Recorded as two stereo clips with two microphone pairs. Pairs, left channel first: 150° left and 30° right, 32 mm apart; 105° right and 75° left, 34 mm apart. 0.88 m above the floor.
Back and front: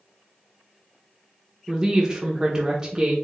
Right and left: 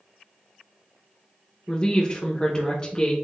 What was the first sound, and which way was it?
A woman speaking, 65° right.